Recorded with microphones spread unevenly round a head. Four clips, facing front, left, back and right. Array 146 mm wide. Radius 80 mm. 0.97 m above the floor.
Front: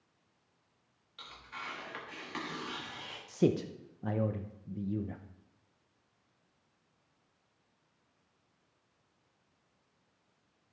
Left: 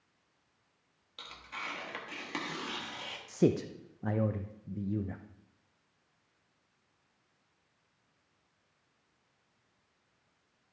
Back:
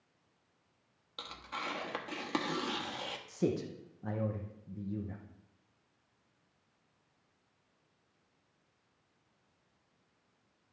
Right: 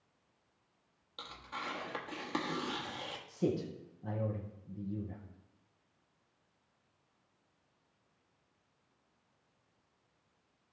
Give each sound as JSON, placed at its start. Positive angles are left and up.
{"t": 1.2, "sound": "tearing paper", "azimuth_deg": -170, "distance_m": 1.2}
{"t": 3.3, "sound": "a man speaking", "azimuth_deg": 50, "distance_m": 0.6}